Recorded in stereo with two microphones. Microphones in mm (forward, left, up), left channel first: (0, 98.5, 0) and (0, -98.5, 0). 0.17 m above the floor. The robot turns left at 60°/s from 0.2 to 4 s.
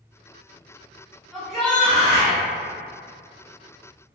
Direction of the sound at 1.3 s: 5° right (ahead or behind).